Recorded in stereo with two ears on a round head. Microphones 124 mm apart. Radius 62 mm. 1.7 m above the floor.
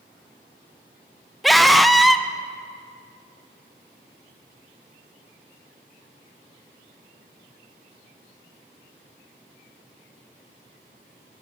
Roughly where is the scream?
Centre.